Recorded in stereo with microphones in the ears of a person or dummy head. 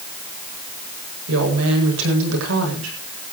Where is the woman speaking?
75° right (ahead or behind), 8.5 m.